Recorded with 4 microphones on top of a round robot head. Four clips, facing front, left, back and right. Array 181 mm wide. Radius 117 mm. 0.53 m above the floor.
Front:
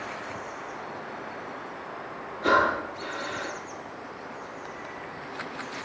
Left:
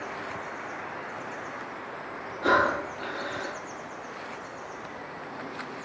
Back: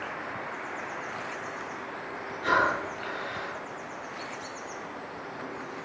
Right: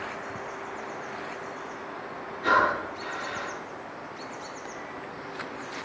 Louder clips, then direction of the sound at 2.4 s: Even, front 3 dB; 55° left.